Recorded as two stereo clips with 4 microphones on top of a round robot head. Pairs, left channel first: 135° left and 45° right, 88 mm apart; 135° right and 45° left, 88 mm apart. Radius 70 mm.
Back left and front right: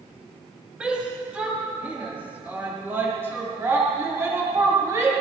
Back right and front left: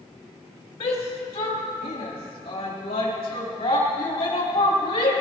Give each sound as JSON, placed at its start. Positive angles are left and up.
{"t": 0.8, "sound": "a shout", "azimuth_deg": -125, "distance_m": 3.5}